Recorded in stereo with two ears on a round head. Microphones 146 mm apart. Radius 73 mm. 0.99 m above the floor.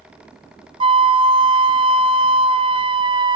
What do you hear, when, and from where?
0.8 s a flute: 30° right (ahead or behind), 0.6 m